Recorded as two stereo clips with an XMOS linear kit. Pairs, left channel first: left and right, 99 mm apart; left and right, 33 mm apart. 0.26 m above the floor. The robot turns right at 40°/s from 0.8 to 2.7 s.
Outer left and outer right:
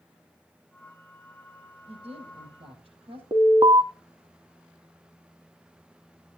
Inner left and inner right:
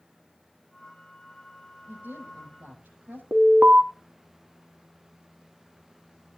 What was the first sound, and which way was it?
A woman speaking, 100° right.